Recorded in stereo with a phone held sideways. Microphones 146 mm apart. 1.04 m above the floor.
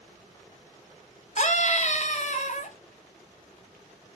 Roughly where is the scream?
Left.